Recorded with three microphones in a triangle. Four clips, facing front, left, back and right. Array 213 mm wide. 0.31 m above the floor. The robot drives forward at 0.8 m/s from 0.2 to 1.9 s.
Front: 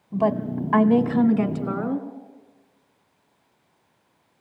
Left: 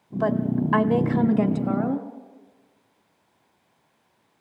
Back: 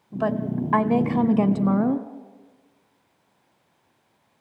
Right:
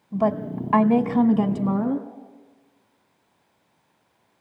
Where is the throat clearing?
No throat clearing in this recording.